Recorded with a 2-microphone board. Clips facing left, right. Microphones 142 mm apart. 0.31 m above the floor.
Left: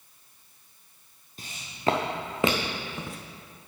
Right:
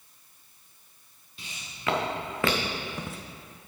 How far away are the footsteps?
About 1.4 m.